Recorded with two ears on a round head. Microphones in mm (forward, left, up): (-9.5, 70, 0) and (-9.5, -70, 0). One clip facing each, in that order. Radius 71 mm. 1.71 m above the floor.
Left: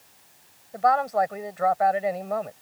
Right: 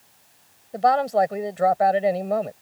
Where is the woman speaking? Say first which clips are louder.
Right 3 dB; 35° right (ahead or behind).